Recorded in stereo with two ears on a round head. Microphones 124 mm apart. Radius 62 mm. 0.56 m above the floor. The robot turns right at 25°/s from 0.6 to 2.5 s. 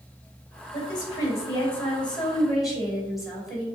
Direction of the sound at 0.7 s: 140° left.